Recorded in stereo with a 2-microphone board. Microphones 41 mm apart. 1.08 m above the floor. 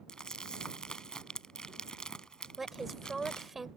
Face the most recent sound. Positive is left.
turn(degrees=-5)  # may be behind; listen again after turning